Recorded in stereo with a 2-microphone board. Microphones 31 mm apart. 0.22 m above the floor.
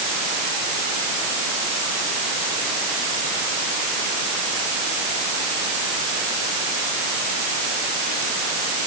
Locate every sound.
Only background noise.